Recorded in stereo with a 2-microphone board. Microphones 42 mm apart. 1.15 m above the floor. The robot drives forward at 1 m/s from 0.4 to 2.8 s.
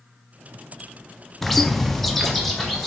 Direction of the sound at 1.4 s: 5° left (ahead or behind).